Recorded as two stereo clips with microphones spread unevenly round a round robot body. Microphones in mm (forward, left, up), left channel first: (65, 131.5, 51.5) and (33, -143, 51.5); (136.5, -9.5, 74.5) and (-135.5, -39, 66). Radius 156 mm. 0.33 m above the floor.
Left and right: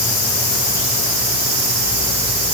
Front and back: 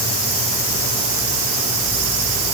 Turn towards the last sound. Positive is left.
No sound to turn to.